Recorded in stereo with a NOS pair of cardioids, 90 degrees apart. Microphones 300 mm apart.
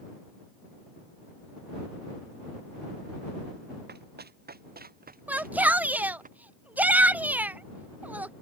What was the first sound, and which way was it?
Running footsteps, 35° right.